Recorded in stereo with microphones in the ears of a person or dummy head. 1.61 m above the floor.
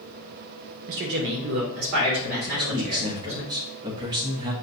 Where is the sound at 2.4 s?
25° right (ahead or behind), 0.6 m.